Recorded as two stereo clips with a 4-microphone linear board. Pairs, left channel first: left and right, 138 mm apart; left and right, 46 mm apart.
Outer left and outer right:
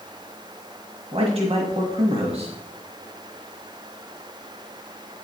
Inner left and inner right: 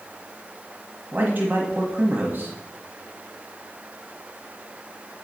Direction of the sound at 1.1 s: 45° right (ahead or behind).